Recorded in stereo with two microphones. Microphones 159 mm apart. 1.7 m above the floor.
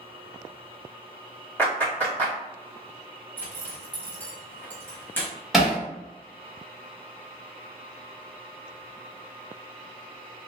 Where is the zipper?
10° left (ahead or behind), 1.1 m.